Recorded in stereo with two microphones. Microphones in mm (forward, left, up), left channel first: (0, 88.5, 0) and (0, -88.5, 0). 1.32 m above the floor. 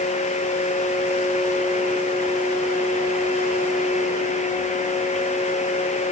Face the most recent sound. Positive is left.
No sound to turn to.